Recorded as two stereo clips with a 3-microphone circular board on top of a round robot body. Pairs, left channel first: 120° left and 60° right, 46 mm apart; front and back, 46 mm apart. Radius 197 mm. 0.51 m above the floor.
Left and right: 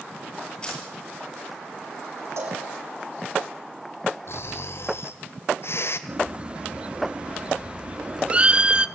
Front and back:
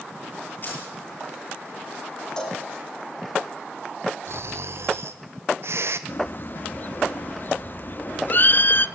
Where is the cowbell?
70° right, 7 m.